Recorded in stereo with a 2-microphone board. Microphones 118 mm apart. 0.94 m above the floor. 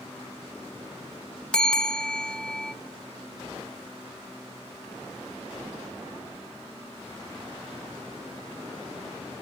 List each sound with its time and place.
1.5 s a bell: 5° left (ahead or behind), 0.8 m